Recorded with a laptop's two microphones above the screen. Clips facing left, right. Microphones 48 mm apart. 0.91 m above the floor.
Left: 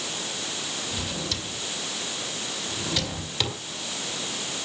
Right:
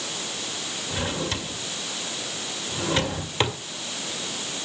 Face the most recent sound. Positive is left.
turn(degrees=-30)  # may be behind; listen again after turning